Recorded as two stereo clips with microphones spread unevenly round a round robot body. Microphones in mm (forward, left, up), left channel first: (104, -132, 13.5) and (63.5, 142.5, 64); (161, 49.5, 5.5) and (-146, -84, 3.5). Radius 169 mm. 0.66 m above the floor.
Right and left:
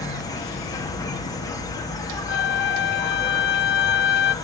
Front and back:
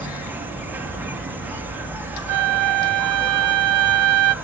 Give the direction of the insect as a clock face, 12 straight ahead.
3 o'clock.